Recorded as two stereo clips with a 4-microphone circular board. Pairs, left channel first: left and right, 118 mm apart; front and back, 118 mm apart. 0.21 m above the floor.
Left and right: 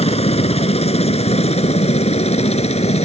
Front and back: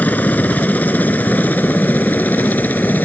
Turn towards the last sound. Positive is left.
turn(degrees=75)